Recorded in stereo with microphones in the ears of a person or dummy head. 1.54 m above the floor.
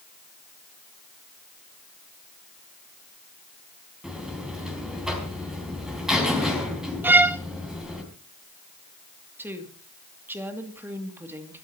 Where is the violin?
10° right (ahead or behind), 0.6 m.